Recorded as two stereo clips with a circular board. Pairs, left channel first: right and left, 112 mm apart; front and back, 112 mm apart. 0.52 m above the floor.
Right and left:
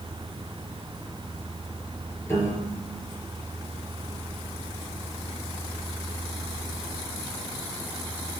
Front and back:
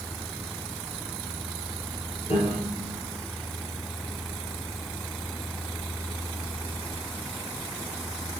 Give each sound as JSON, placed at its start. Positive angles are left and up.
{"t": 2.3, "sound": "a piano", "azimuth_deg": -20, "distance_m": 4.5}